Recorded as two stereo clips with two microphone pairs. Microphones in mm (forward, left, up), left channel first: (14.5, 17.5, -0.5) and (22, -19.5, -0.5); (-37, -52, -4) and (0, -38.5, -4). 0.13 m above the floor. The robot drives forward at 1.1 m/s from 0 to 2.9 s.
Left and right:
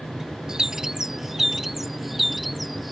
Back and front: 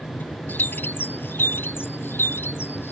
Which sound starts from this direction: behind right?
A bird, at 0.5 s.